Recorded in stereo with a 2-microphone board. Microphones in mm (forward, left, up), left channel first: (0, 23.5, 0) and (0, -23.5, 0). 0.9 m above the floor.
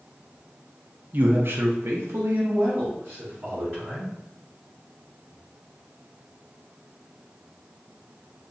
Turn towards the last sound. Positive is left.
turn(degrees=-45)  # may be behind; listen again after turning